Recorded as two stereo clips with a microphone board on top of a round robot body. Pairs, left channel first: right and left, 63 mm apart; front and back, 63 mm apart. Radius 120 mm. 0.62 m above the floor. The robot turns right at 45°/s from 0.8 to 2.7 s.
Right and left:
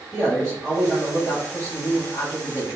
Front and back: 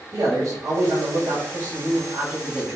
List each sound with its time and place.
0.1 s a man speaking: straight behind, 1.4 m; by 2.8 s 95° right, 1.4 m